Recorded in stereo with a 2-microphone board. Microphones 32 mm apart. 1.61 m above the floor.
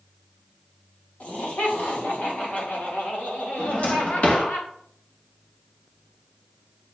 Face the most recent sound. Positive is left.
turn(degrees=45)  # may be behind; listen again after turning